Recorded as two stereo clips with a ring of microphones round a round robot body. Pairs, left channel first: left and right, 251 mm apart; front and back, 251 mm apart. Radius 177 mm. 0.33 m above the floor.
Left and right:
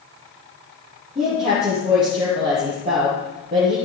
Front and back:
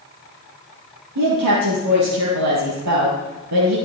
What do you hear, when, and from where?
1.1 s a woman speaking: 160° right, 7 m